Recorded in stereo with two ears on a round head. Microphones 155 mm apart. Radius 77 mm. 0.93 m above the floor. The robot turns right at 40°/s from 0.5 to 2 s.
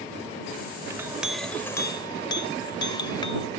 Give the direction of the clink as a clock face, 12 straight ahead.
1 o'clock.